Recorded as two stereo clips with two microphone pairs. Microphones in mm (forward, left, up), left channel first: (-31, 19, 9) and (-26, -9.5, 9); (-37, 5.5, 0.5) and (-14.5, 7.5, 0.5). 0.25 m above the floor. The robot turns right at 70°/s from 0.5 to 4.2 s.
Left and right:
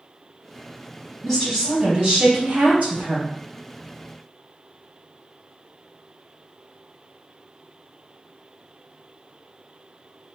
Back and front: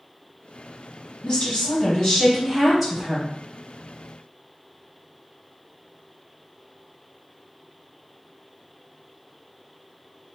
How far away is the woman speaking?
About 1.8 m.